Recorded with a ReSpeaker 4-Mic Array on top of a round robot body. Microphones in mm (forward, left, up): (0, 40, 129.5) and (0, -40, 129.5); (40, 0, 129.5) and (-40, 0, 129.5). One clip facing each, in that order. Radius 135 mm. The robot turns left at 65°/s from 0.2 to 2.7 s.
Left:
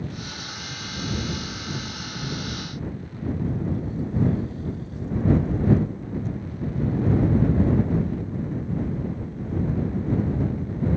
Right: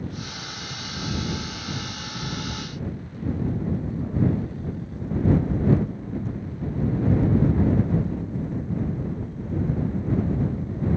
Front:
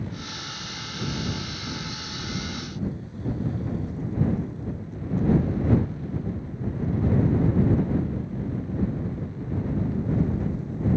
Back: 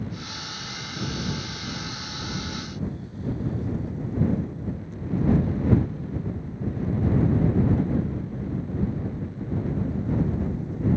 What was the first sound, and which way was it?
Only background noise.